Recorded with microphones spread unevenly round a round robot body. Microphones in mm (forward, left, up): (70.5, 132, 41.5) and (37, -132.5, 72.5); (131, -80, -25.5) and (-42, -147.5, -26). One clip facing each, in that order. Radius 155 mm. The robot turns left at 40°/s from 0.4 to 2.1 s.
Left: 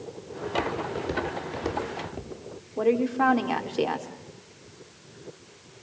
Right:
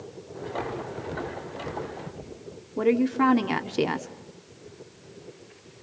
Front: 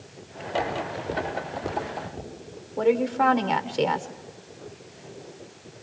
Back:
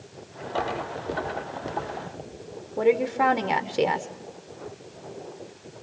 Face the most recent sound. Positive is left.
turn(degrees=-95)